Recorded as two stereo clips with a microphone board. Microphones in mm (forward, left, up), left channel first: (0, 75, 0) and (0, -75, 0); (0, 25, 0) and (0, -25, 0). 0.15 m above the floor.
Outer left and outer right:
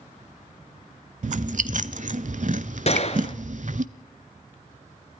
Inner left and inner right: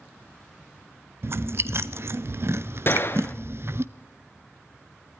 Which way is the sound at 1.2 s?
55° right (ahead or behind).